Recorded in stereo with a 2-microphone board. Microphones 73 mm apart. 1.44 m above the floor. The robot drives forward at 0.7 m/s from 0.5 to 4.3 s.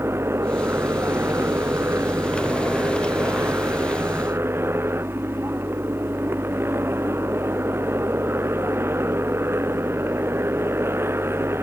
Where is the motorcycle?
35° right (ahead or behind); by 11.6 s 30° right (ahead or behind).